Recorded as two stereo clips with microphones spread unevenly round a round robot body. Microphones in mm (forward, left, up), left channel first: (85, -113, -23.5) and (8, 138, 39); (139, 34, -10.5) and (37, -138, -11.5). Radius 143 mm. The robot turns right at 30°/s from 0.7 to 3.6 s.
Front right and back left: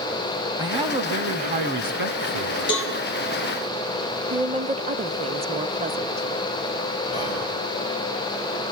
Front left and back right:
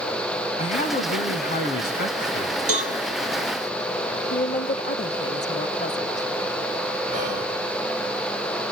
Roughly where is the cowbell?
Behind right.